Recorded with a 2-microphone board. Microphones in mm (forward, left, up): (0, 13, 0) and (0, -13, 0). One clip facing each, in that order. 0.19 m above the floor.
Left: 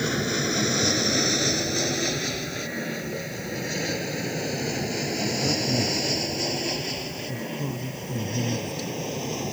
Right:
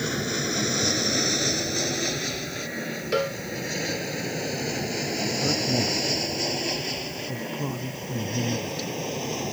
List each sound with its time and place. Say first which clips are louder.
0.0 s an aircraft: left 2 dB; 10° left (ahead or behind); by 9.5 s 5° right (ahead or behind)
3.1 s a cowbell: right 7 dB; 85° right
5.4 s a man speaking: right 1 dB; 25° right (ahead or behind)